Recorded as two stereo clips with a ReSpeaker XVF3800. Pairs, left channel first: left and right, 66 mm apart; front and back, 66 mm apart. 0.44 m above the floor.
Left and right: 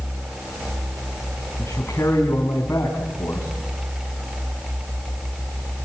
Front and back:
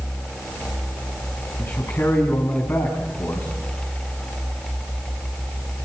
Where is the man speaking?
45° left, 4.5 m.